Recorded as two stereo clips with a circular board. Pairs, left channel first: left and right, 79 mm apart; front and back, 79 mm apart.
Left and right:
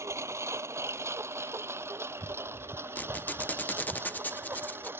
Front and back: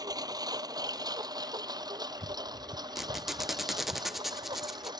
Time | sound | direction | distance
0.0 | a lawn mower | 145° right | ?
3.0 | a squeak | 100° left | ?